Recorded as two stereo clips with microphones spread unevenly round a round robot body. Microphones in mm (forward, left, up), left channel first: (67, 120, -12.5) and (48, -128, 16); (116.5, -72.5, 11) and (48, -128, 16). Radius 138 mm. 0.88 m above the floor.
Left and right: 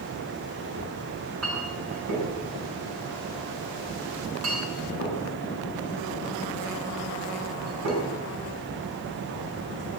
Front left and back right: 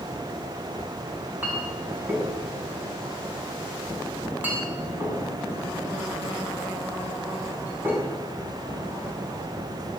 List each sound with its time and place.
1.1 s a clink: 75° right, 6.5 m